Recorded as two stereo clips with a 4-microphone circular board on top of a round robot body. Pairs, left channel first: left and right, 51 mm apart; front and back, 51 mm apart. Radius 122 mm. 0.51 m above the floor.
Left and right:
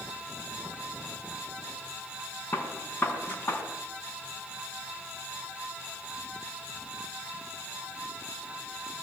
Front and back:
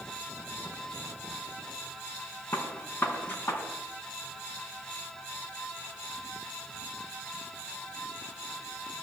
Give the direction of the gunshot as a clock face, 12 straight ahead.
11 o'clock.